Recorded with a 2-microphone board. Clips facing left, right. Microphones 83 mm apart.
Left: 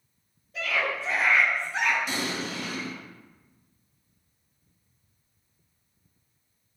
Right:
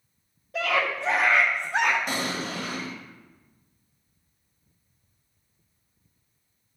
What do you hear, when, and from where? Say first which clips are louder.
0.5 s a scream: right 3 dB; 70° right (ahead or behind), 1.1 m; by 2.0 s 65° right (ahead or behind), 1.2 m
2.1 s an explosion: right 2 dB; 45° right (ahead or behind), 1.3 m